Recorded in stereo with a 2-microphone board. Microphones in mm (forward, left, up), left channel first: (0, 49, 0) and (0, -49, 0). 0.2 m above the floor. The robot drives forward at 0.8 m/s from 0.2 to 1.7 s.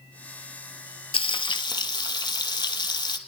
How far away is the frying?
About 0.8 m.